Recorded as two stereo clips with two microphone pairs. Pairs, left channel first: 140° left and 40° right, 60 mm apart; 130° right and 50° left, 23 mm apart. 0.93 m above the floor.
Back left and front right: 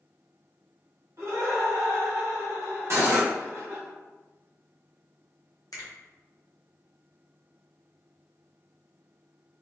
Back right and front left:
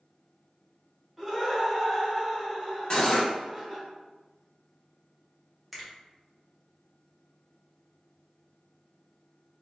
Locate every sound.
1.2 s laughter: 30° right, 1.4 m
2.9 s cutlery clinking: 75° right, 0.7 m
5.7 s a finger snap: 140° left, 0.8 m